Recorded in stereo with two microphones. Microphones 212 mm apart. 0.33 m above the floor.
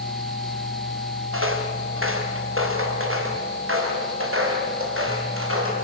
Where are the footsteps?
75° right (ahead or behind), 3 m; by 5.7 s 85° right, 6 m.